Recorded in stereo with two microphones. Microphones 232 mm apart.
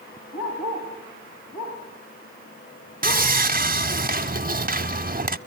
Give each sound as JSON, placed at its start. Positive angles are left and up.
{"t": 0.3, "sound": "a dog barking", "side_deg": 70, "distance_m": 9.5}
{"t": 3.0, "sound": "sawing", "side_deg": -40, "distance_m": 0.7}